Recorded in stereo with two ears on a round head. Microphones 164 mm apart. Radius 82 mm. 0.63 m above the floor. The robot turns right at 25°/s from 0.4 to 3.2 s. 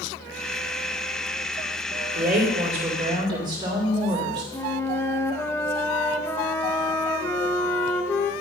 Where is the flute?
15° left (ahead or behind), 0.5 m.